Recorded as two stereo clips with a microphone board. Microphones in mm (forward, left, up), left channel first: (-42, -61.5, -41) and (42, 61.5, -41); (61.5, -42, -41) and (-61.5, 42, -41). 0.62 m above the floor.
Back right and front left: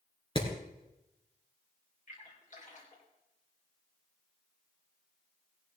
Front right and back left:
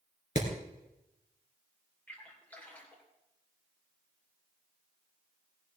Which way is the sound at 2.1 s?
110° right.